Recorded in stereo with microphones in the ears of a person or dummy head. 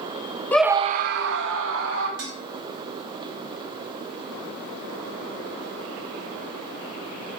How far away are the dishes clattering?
About 2.5 m.